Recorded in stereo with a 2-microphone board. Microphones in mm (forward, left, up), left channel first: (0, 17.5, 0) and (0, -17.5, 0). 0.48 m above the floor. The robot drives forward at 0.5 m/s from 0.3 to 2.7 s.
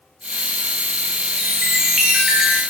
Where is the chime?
10° right (ahead or behind), 5 m.